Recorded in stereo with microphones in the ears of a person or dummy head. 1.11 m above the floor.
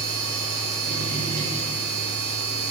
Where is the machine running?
60° right (ahead or behind), 1.8 m.